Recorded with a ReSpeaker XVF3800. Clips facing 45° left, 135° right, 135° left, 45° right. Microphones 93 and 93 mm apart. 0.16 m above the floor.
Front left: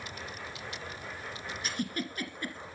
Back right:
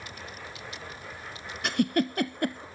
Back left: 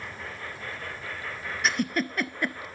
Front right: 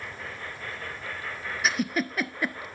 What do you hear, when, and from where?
1.6 s a giggle: 130° right, 0.6 m